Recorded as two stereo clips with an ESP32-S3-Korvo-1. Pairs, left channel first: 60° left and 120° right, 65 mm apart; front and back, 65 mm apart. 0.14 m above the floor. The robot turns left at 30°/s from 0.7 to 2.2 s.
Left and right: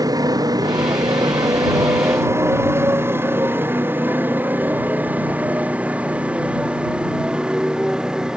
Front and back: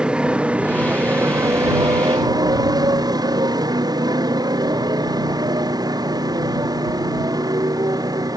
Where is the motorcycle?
105° right; by 8.4 s 160° left.